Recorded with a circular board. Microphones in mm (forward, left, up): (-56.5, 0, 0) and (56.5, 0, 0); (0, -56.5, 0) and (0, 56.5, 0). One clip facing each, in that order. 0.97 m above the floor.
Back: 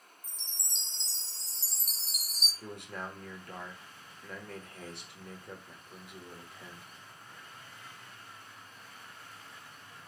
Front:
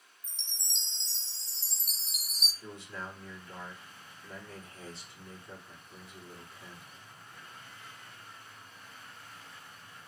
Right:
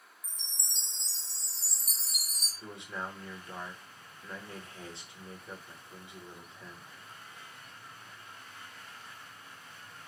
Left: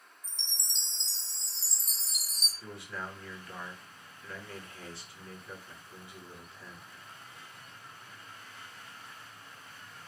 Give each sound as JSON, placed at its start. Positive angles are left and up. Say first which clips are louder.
{"t": 0.2, "sound": "a chime", "louder": "front 2 dB, left 2 dB", "azimuth_deg": 145, "distance_m": 0.6}
{"t": 2.6, "sound": "a man speaking", "louder": "back 2 dB, right 1 dB", "azimuth_deg": -160, "distance_m": 0.9}